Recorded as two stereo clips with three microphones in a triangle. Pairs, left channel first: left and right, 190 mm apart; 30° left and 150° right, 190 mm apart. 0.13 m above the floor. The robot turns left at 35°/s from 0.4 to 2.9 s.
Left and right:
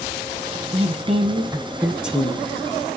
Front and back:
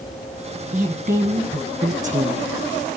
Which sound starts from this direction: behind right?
A woman speaking, at 0.7 s.